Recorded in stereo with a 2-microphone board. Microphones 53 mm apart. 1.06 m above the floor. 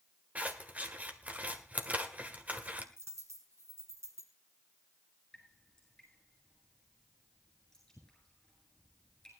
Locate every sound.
0.3 s scissors: 30° right (ahead or behind), 1.3 m
3.0 s a dropped coin: 75° right (ahead or behind), 3.5 m
5.3 s dripping: 10° left (ahead or behind), 9 m